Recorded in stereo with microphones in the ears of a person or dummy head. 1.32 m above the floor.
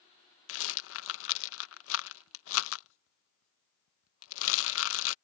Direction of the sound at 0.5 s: 90° left.